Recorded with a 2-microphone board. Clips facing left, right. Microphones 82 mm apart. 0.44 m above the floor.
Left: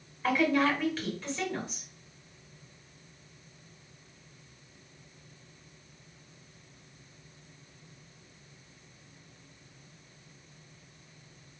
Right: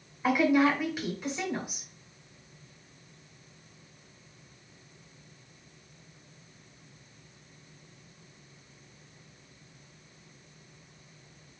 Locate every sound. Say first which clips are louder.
0.2 s a woman speaking: right 3 dB; 15° right (ahead or behind), 1.8 m